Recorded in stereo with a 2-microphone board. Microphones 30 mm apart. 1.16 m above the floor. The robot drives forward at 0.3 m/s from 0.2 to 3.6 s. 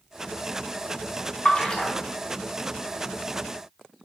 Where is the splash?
30° left (ahead or behind), 2.0 m.